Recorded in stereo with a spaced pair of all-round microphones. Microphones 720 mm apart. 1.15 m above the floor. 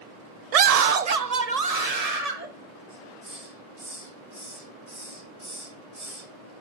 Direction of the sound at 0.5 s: 55° right (ahead or behind).